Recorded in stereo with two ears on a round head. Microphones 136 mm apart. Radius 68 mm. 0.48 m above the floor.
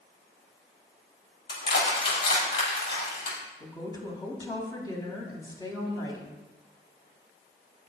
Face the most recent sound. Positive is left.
turn(degrees=25)  # may be behind; listen again after turning